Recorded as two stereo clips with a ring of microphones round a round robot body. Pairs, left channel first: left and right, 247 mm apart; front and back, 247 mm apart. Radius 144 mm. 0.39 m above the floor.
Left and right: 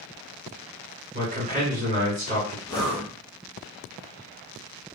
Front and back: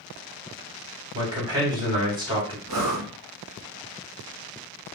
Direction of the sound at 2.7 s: 170° left.